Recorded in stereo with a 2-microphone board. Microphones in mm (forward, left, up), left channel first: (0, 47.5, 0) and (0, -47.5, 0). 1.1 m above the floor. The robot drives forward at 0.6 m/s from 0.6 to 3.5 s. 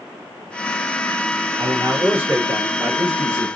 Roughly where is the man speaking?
Right.